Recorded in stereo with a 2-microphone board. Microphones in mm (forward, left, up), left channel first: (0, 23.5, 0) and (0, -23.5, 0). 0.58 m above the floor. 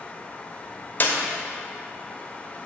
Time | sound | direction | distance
1.0 | a clap | 40° left (ahead or behind) | 0.8 m